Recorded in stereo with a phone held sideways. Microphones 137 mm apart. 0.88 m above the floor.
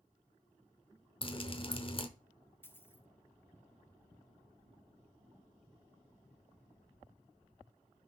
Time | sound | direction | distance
1.2 | dripping | 40° left (ahead or behind) | 0.7 m
2.6 | a dropped coin | 15° left (ahead or behind) | 0.8 m